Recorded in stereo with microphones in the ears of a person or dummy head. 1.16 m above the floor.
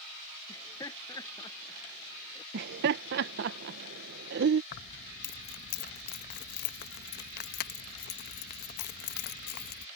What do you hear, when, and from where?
0.5 s laughter: 20° left (ahead or behind)
2.5 s laughter: 60° right (ahead or behind)
4.7 s keys jangling: 50° left (ahead or behind)